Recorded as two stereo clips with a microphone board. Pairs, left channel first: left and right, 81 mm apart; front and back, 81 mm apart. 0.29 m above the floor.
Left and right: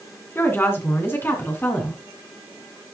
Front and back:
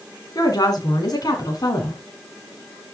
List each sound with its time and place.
0.3 s a woman speaking: 30° left, 2.5 m